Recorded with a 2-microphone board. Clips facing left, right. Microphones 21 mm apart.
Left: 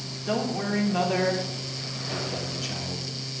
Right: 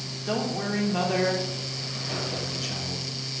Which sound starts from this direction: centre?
A man speaking, at 0.3 s.